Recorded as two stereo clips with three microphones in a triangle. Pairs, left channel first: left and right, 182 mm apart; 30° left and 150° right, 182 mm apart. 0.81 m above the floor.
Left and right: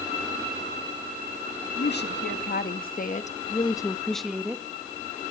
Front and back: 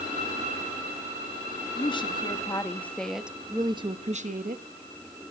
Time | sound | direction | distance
1.8 | a woman speaking | 90° left | 1.3 m